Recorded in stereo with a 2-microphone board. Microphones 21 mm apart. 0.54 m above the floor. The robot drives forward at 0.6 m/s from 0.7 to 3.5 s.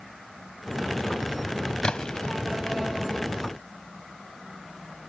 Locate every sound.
1.8 s a splash: 45° left (ahead or behind); by 2.4 s 60° left (ahead or behind)